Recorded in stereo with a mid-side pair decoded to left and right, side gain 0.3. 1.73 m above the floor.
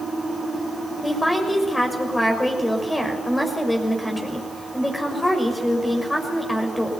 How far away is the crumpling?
No crumpling in this recording.